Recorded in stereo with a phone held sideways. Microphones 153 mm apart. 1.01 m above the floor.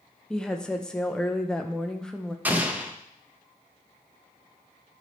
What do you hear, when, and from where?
0.3 s a woman speaking: 5° left (ahead or behind), 0.7 m
2.5 s an explosion: 10° right (ahead or behind), 0.8 m